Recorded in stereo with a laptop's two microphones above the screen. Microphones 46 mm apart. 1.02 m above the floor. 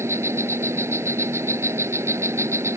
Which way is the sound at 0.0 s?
80° right.